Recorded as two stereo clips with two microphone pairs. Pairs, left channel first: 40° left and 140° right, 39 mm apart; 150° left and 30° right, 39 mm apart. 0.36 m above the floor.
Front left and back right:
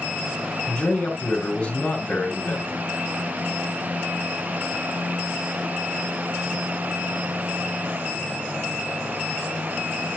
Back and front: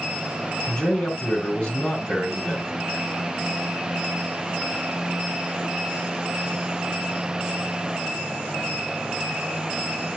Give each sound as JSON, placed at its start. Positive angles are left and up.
{"t": 0.7, "sound": "a man speaking", "azimuth_deg": 95, "distance_m": 3.5}